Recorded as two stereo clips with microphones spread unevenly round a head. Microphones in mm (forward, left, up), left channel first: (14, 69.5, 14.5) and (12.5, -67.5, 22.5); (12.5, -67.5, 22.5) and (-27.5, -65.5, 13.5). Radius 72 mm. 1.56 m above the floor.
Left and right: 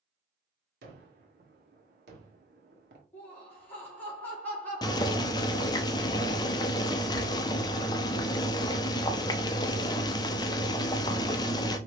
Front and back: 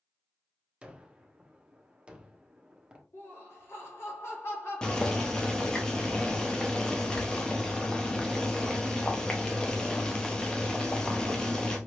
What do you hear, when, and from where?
0.8 s a gunshot: 115° right, 1.2 m
3.1 s laughter: 10° left, 2.5 m
4.8 s boiling: 40° left, 0.5 m